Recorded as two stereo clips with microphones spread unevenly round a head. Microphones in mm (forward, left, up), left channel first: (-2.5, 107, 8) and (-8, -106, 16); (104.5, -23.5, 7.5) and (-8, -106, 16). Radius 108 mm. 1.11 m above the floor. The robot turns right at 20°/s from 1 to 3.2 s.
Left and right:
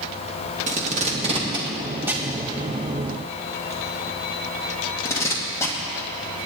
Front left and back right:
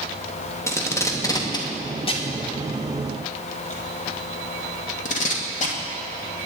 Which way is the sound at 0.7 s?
30° right.